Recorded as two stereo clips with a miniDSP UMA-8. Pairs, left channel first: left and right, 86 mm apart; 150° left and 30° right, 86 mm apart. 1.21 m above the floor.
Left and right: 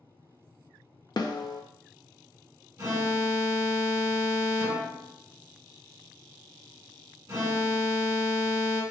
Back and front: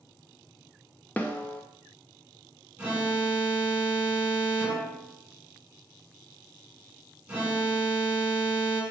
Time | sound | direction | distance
1.2 | a snare drum | 80° left | 0.5 m
2.8 | an alarm | 90° right | 1.3 m